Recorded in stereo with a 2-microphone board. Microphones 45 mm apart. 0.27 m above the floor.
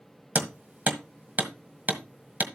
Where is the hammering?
40° right (ahead or behind), 1.6 m.